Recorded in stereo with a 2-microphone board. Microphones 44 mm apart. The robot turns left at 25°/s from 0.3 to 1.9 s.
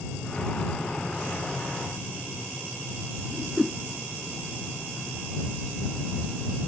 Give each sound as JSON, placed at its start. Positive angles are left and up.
{"t": 3.3, "sound": "a whoosh", "side_deg": -5}